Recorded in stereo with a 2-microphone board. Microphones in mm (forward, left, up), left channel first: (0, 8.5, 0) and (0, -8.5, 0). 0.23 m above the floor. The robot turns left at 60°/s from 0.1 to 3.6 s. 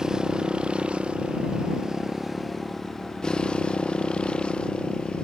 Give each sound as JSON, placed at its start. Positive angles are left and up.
{"t": 0.0, "sound": "a motorcycle", "azimuth_deg": -40}